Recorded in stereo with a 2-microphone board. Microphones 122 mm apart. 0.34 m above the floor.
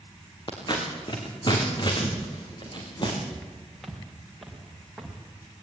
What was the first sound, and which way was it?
Scissors, 40° left (ahead or behind).